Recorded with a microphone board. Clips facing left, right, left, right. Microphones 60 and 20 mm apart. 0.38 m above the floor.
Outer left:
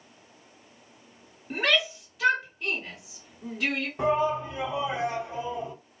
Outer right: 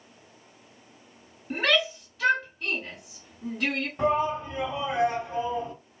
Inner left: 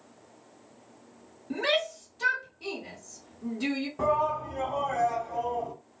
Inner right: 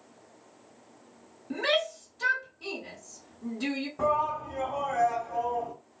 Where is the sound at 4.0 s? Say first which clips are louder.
Even, even; 10° left (ahead or behind), 1.9 m.